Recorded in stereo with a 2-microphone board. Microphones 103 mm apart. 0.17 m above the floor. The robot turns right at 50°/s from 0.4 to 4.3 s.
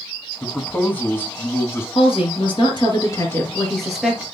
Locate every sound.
0.4 s a man speaking: 5° left (ahead or behind), 1.3 m; by 1.9 s 25° left (ahead or behind), 1.3 m
1.9 s a woman speaking: 85° left, 3 m; by 4.2 s 160° right, 3 m